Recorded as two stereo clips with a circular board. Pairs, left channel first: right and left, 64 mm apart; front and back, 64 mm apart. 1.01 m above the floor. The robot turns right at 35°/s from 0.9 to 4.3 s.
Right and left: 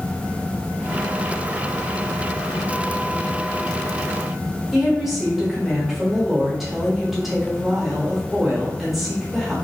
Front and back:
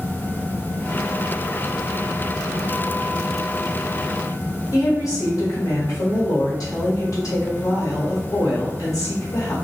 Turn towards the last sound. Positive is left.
turn(degrees=5)